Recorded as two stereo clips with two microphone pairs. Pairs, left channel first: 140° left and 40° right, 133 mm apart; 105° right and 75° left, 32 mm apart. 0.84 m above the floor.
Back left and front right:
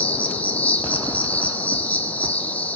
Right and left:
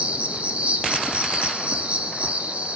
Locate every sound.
0.0 s an insect: 70° left, 1.0 m